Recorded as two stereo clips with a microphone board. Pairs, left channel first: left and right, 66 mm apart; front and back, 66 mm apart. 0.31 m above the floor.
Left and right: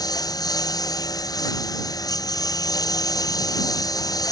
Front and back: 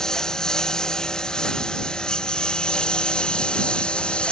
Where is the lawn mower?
80° left; by 4.3 s 75° left.